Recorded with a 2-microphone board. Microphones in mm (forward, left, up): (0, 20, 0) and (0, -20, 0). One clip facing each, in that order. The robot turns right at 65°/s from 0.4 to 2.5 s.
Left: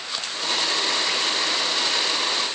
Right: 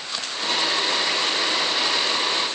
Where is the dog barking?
I don't hear a dog barking.